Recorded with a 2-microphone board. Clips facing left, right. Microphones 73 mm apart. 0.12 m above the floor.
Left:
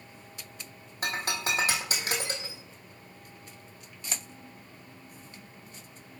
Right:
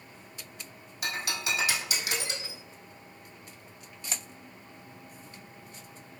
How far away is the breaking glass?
About 1.4 m.